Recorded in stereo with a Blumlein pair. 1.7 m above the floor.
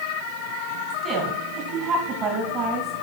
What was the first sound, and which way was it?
A woman speaking, 35° right.